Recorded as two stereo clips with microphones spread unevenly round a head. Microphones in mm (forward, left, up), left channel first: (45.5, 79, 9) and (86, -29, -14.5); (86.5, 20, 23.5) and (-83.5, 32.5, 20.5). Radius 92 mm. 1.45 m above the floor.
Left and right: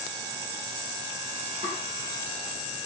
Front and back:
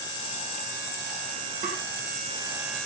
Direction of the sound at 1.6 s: 135° right.